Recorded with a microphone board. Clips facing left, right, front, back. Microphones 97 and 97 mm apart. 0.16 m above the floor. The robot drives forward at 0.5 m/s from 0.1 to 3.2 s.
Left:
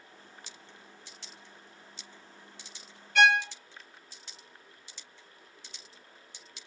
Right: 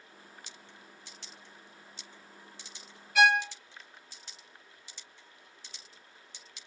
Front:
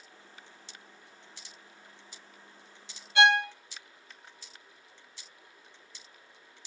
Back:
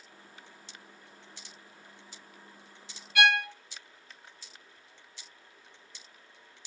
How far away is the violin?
About 0.5 m.